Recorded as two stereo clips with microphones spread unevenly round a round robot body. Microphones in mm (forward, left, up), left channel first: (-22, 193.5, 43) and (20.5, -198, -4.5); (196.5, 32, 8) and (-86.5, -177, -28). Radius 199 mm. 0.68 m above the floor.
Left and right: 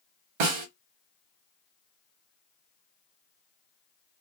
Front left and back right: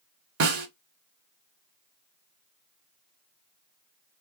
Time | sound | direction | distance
0.4 | a snare drum | 95° right | 1.0 m